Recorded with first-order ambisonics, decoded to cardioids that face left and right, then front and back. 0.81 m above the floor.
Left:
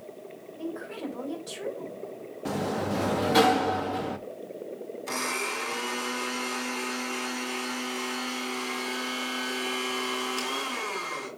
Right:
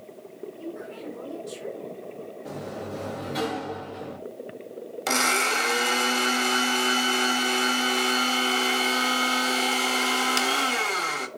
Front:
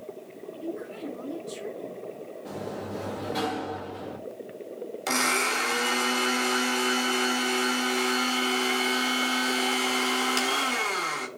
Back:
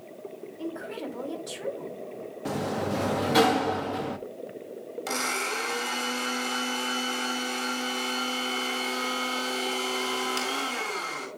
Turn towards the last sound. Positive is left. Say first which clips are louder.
# right 8 dB, front 4 dB
turn(degrees=-75)